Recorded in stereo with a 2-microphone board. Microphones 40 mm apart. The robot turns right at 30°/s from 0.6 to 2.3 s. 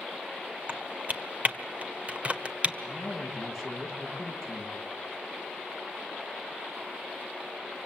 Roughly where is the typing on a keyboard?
Right.